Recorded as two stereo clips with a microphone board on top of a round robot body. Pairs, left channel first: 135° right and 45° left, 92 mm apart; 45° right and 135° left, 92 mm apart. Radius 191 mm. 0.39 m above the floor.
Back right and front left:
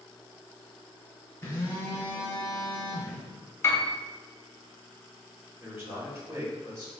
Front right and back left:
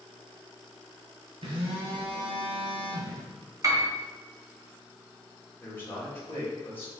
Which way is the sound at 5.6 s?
5° left.